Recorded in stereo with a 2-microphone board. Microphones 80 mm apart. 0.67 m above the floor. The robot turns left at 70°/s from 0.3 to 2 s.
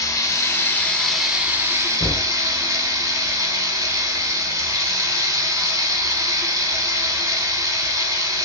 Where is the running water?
60° left, 0.8 m; by 8.5 s 55° right, 0.8 m.